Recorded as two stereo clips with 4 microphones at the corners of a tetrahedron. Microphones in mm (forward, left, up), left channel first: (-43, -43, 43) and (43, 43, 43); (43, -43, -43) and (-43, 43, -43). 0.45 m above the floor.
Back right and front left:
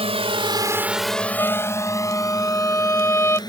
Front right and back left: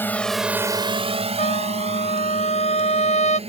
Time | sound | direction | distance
0.0 | a drone | 25° left | ?
1.4 | a trumpet | 65° right | ?